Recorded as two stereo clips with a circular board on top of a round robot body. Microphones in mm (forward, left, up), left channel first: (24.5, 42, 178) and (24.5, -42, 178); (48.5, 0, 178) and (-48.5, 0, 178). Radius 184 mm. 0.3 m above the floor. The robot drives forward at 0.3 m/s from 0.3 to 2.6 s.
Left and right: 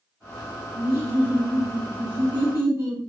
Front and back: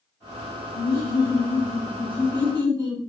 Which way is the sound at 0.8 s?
45° right.